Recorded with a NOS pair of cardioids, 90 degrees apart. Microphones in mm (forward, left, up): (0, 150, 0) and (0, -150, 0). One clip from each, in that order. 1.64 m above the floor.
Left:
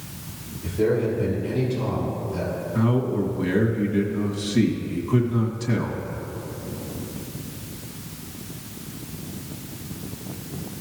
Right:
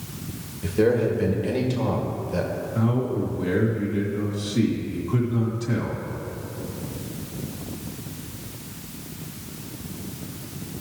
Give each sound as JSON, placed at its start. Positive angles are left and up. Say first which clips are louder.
{"t": 0.6, "sound": "a man speaking", "louder": "right 2 dB", "azimuth_deg": -65, "distance_m": 2.0}
{"t": 2.8, "sound": "a man speaking", "louder": "left 2 dB", "azimuth_deg": 25, "distance_m": 2.0}